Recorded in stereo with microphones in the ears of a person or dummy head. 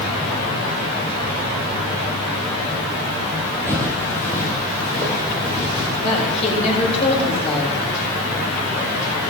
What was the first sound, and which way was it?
Footsteps, 15° left (ahead or behind).